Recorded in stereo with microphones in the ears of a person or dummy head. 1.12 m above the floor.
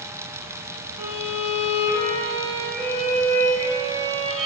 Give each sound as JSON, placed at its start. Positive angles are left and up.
{"t": 1.0, "sound": "a violin", "side_deg": -25, "distance_m": 1.3}